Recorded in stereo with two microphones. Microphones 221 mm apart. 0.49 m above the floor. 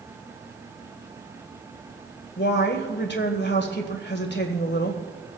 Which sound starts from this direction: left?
A woman speaking, at 2.4 s.